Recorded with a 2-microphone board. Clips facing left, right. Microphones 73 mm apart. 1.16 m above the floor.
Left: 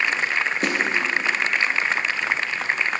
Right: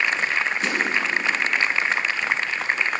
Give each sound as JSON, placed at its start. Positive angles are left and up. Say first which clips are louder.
{"t": 0.6, "sound": "a snare drum", "louder": "left 3 dB", "side_deg": 50, "distance_m": 0.9}